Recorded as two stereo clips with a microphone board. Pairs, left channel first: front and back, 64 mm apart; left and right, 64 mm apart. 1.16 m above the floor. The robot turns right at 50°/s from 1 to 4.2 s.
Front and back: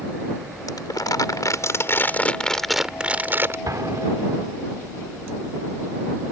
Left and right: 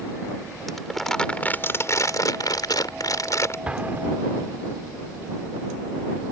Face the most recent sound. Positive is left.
turn(degrees=-135)